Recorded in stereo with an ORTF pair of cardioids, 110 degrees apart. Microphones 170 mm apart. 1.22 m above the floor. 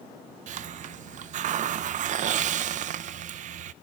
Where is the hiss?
50° right, 0.6 m.